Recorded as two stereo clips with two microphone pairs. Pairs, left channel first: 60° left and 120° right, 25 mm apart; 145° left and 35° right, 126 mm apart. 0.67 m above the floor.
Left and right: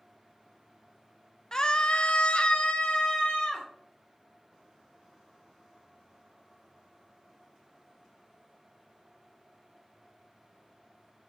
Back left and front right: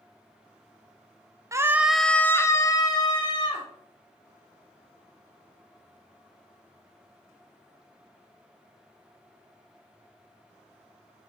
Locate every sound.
1.5 s a scream: 15° left, 0.6 m; by 3.7 s 100° left, 1.4 m